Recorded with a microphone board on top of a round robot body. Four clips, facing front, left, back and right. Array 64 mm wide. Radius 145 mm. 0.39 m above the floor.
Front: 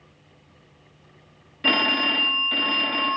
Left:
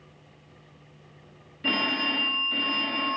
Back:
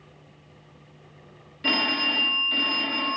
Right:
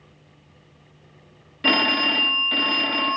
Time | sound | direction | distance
1.6 | a phone ringing | 70° right | 0.6 m